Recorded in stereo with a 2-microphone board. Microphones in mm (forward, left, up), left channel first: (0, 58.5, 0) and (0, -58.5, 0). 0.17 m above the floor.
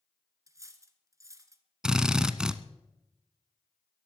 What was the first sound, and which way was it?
Cutlery clinking, 25° right (ahead or behind).